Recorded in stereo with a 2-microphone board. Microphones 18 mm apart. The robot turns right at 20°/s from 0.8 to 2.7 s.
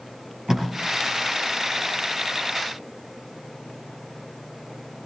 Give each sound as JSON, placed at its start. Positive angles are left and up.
{"t": 0.5, "sound": "tape being pulled", "side_deg": -20, "distance_m": 3.5}